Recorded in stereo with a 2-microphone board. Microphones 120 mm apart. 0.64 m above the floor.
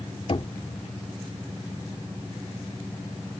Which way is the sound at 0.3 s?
50° left (ahead or behind).